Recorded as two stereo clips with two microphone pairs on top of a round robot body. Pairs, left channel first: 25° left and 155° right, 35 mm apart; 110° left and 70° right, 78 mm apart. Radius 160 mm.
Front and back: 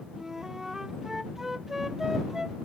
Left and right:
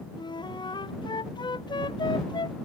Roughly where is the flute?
Behind left.